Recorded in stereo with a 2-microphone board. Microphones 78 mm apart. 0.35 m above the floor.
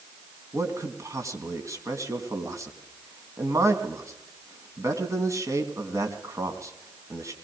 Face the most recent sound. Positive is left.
turn(degrees=-40)  # may be behind; listen again after turning